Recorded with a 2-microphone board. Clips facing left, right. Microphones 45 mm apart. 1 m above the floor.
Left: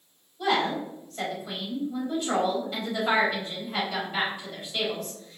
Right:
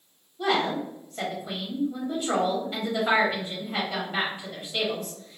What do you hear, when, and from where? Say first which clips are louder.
0.4 s a woman speaking: even; 20° right (ahead or behind), 1.9 m